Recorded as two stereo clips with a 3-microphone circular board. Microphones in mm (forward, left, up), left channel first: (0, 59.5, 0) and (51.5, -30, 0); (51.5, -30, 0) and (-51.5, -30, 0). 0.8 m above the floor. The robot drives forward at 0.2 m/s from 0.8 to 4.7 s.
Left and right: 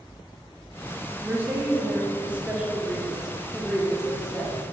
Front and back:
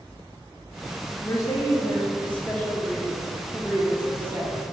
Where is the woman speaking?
10° right, 0.7 m; by 4.5 s 165° right, 0.7 m.